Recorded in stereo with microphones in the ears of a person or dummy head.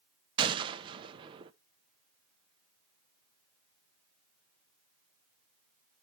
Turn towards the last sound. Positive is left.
turn(degrees=-25)  # may be behind; listen again after turning